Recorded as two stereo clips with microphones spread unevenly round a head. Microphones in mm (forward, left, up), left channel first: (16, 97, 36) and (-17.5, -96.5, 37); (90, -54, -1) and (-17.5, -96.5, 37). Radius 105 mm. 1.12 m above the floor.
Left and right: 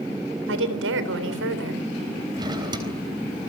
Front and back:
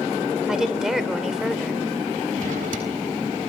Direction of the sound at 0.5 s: 75° right.